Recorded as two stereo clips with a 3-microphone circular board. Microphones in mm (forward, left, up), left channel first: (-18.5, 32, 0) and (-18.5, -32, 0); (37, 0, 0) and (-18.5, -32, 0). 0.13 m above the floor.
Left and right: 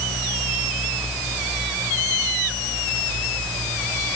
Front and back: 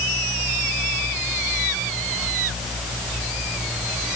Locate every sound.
Only background noise.